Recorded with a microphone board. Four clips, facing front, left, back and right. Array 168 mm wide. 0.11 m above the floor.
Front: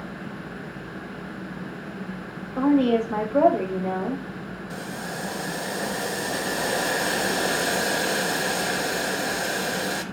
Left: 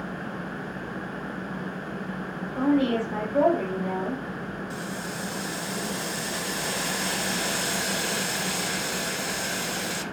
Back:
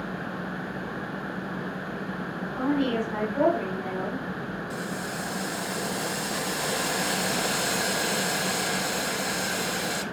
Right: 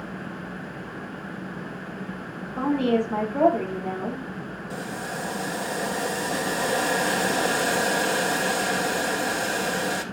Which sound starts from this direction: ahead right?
Boiling, at 4.7 s.